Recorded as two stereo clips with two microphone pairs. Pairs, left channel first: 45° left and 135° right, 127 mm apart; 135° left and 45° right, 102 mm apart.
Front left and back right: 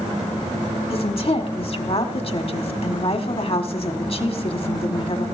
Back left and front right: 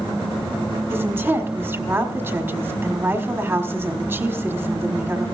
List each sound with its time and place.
0.9 s a woman speaking: 20° left, 1.3 m